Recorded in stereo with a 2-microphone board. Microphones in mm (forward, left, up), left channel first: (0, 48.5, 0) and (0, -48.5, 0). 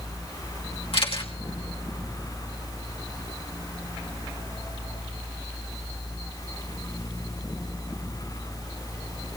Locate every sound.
0.9 s a camera shutter: 75° left (ahead or behind), 3 m